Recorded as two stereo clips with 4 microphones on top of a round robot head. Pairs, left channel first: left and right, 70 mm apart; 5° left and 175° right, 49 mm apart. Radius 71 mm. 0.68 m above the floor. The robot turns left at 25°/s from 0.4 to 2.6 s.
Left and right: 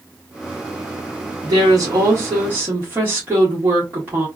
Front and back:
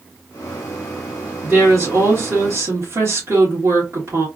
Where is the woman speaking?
120° right, 1.9 m; by 4.3 s 150° right, 1.9 m.